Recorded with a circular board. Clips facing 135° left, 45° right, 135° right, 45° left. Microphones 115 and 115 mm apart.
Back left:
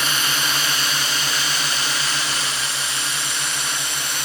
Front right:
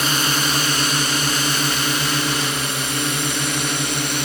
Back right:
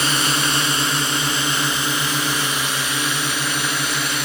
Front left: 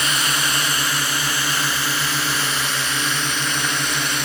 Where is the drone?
85° right; by 4.2 s 50° right.